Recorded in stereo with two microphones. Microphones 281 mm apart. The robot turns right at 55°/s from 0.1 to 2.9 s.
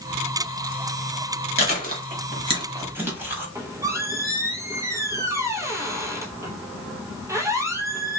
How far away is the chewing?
About 1.1 m.